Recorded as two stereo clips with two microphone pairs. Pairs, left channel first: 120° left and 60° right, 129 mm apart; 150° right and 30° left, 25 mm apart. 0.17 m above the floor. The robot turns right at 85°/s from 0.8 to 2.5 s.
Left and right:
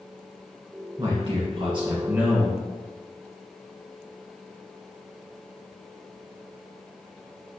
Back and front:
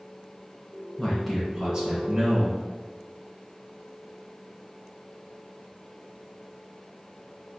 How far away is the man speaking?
About 1.6 m.